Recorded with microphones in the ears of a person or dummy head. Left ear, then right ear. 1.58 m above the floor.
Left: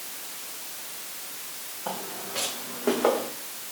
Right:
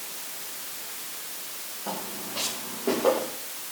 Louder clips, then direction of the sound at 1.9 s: Left 1 dB; 70° left (ahead or behind).